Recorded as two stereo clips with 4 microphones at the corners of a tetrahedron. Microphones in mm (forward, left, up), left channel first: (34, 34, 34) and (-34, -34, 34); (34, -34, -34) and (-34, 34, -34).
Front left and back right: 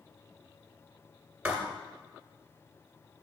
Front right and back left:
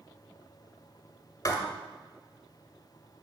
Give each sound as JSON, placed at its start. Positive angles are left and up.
{"t": 1.4, "sound": "writing", "azimuth_deg": -70, "distance_m": 1.6}